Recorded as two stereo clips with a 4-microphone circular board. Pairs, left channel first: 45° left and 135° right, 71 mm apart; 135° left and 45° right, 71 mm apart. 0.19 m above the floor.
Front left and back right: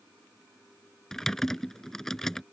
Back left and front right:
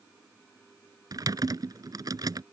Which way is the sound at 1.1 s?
40° right.